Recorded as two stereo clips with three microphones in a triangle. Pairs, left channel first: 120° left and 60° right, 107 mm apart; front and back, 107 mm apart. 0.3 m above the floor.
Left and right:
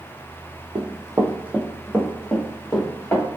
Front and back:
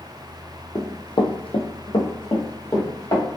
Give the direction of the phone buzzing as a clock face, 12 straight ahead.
I don't hear a phone buzzing.